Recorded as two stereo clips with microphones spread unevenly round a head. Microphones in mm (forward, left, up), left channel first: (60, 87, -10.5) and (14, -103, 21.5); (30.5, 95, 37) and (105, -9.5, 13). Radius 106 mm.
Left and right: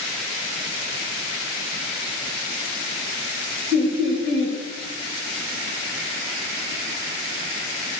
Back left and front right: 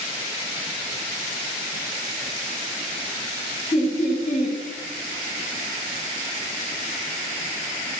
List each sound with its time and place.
3.7 s laughter: 175° right, 1.3 m